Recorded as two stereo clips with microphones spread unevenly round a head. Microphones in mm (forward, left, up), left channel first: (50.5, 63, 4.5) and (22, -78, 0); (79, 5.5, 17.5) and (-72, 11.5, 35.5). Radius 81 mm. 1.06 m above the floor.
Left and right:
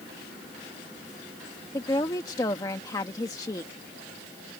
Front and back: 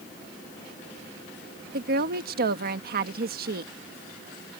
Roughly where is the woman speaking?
Behind left.